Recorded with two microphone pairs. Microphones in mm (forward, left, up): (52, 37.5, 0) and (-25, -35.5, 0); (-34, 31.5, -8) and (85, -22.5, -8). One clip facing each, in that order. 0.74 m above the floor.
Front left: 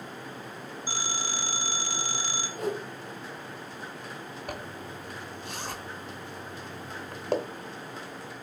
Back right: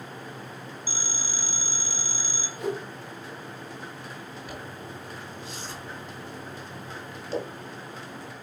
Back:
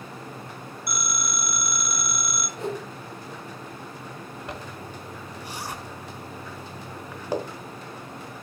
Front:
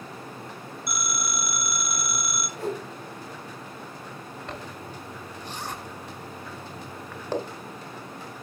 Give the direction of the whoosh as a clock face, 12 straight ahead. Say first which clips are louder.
Back right 1 dB, even; 9 o'clock.